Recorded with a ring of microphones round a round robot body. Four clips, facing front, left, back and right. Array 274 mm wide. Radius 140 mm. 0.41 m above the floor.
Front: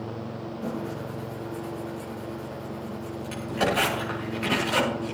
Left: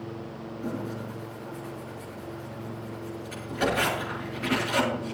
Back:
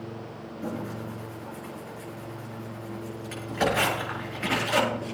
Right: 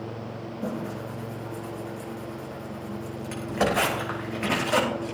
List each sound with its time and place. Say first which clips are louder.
0.6 s tearing paper: right 1 dB, even; 100° right, 9.5 m